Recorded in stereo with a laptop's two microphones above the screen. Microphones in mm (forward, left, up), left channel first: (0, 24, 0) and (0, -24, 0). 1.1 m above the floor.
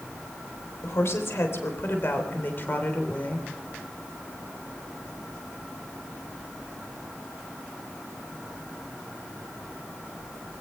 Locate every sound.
0.8 s a woman speaking: 65° left (ahead or behind), 4 m; by 3.5 s 30° left (ahead or behind), 3 m